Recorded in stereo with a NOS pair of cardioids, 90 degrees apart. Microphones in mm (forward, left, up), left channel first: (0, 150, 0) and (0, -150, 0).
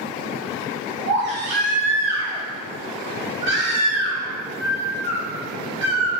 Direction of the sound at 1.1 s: 60° right.